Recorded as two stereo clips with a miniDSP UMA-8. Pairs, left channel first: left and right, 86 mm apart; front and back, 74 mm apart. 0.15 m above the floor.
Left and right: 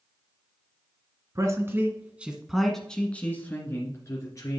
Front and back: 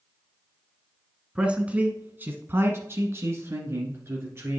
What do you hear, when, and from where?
1.4 s a man speaking: 110° right, 1.5 m; by 4.6 s 130° left, 2.5 m